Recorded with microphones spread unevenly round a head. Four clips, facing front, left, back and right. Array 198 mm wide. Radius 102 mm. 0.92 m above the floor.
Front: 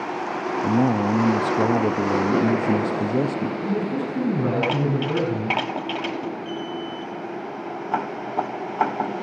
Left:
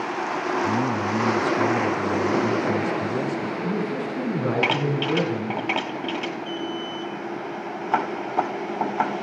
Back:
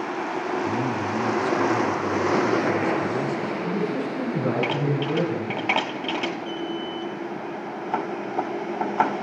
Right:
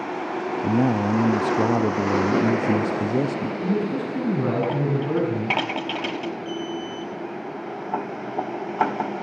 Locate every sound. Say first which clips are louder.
0.6 s a man speaking: right 7 dB, front 5 dB; 30° right, 1.1 m
3.6 s a man speaking: right 2 dB, front 1 dB; 60° right, 9.5 m
6.5 s an alarm: even, even; 30° right, 9.5 m